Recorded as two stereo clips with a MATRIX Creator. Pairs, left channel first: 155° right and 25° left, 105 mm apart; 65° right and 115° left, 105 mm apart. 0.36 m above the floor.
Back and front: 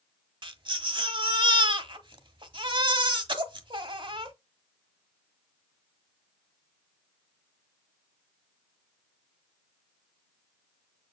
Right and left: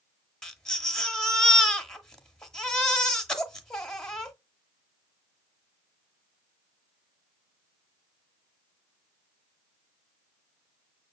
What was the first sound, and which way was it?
A baby crying, 15° left.